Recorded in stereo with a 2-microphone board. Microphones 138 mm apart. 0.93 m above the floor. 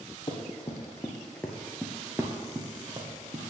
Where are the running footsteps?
35° left (ahead or behind), 1.5 m; by 3.5 s 40° right (ahead or behind), 1.6 m.